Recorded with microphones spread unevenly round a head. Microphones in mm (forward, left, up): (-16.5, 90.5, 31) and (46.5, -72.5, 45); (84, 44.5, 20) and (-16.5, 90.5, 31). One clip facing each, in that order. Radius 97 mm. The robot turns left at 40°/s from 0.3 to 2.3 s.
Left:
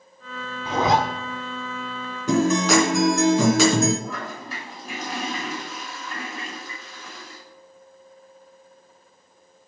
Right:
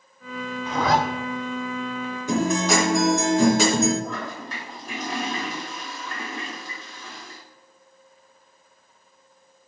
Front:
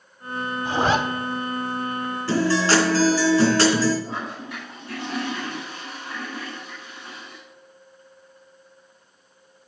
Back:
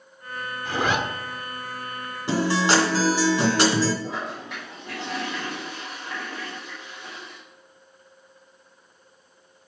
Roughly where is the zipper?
Ahead left.